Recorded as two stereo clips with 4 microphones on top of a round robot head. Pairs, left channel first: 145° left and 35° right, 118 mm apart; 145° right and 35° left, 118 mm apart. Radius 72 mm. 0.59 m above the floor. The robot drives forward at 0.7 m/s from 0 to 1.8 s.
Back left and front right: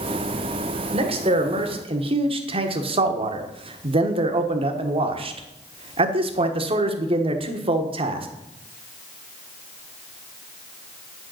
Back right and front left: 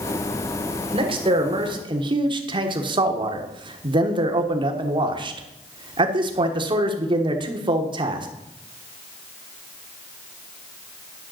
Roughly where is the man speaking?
Ahead.